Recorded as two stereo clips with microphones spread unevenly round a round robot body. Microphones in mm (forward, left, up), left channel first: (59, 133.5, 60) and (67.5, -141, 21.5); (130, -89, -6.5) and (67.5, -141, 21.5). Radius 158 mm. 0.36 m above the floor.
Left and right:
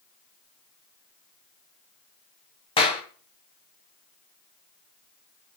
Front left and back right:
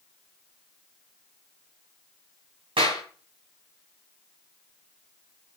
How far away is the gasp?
I don't hear a gasp.